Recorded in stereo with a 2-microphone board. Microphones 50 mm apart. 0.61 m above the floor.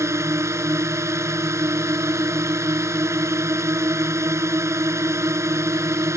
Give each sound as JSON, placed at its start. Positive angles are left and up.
{"t": 0.0, "sound": "a drone", "side_deg": -60}